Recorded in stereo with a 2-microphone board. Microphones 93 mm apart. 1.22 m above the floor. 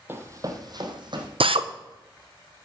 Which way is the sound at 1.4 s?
70° right (ahead or behind).